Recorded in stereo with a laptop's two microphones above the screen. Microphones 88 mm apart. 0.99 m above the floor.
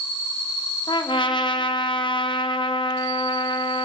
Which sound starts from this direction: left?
A trumpet, at 0.9 s.